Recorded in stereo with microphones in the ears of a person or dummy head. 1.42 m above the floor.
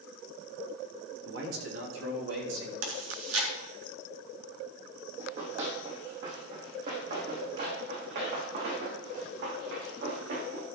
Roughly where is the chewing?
Right.